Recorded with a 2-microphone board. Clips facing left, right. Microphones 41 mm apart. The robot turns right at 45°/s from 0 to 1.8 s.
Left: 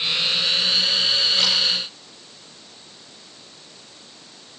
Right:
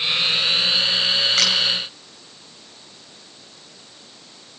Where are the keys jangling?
No keys jangling in this recording.